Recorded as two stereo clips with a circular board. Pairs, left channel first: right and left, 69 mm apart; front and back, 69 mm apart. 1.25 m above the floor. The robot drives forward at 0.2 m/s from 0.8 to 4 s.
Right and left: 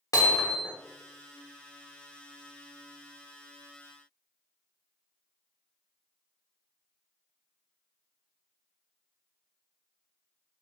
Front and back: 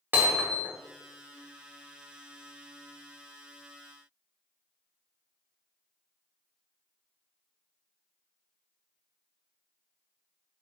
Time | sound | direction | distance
0.1 | hammering | 115° right | 1.0 m